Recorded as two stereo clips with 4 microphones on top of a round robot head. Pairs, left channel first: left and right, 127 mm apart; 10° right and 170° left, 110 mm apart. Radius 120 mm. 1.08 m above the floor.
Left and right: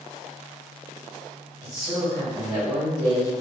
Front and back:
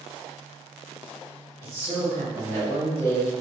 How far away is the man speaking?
About 1.8 m.